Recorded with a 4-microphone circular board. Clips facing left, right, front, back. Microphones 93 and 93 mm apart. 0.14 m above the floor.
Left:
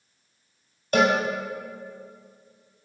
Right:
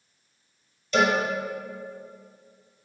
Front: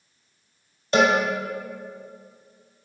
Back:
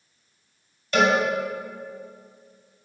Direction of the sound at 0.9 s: 55° left.